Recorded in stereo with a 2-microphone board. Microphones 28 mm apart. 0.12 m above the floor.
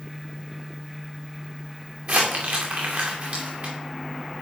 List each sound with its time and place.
2.1 s crumpling: 65° right (ahead or behind), 2 m